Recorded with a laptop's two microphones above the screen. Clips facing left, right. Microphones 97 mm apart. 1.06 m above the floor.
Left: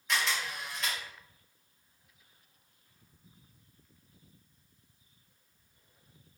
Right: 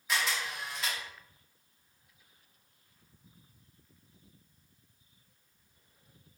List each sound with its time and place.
0.1 s a camera shutter: 5° right (ahead or behind), 0.6 m